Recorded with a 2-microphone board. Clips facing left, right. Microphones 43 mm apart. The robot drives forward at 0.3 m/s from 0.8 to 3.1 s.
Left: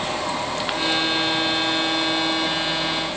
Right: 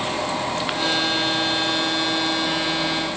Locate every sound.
Only background noise.